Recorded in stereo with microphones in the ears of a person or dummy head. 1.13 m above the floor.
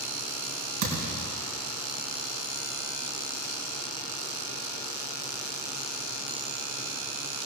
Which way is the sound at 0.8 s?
85° right.